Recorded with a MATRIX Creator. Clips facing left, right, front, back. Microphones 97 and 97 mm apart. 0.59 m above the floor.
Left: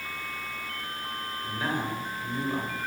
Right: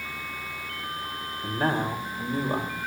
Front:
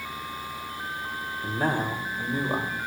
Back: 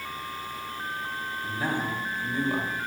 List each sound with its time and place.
1.4 s a man speaking: 35° right, 3 m; by 2.8 s 50° right, 3.5 m